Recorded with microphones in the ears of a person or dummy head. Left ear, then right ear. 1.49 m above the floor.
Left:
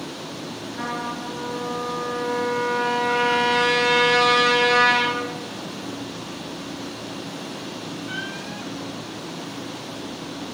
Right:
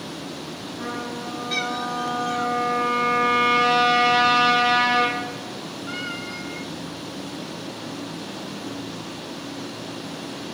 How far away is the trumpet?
About 3 m.